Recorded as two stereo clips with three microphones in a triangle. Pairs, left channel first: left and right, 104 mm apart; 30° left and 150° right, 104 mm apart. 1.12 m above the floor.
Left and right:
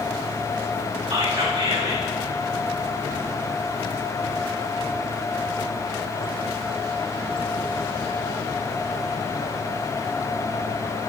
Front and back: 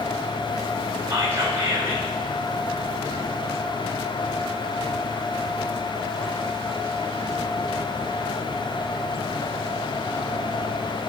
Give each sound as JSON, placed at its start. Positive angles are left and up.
{"t": 1.1, "sound": "whispering", "azimuth_deg": -90, "distance_m": 3.5}